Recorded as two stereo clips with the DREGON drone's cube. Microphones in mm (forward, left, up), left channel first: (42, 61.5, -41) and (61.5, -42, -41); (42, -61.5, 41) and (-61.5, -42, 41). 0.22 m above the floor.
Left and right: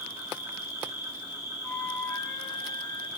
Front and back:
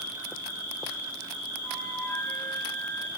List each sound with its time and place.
0.0 s an insect: 150° right, 6 m
1.6 s a flute: 35° left, 1.2 m